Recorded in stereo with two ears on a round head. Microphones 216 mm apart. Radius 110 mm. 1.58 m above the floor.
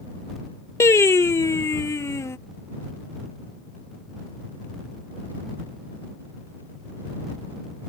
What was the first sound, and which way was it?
Singing, 10° left (ahead or behind).